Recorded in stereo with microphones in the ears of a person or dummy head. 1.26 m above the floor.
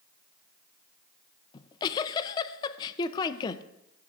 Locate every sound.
1.5 s a giggle: 30° left (ahead or behind), 0.5 m